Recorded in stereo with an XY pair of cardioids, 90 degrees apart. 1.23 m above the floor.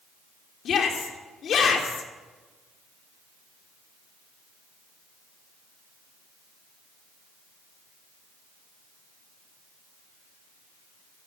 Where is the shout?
65° left, 3 m.